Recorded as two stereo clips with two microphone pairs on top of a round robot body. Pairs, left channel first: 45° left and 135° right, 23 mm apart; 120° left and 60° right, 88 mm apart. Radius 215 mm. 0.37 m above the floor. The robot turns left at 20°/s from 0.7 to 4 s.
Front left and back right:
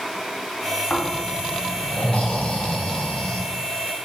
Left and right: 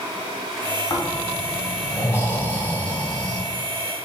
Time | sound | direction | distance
0.9 | snoring | 85° left | 1.3 m